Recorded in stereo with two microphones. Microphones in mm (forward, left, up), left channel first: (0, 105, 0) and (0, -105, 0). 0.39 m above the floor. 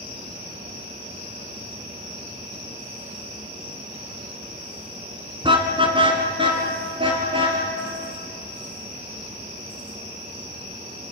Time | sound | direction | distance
5.4 | a car horn | 25° right (ahead or behind) | 2 m